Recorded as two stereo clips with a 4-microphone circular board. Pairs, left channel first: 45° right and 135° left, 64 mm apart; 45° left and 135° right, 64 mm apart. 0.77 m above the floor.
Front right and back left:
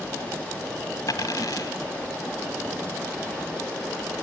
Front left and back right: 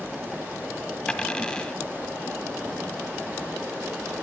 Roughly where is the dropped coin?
Ahead right.